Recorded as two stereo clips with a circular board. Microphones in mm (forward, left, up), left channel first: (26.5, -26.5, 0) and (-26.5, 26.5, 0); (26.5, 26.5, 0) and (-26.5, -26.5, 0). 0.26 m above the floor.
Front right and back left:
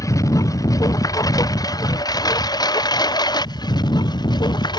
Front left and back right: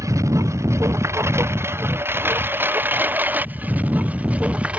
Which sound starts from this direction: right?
A lawn mower, at 0.0 s.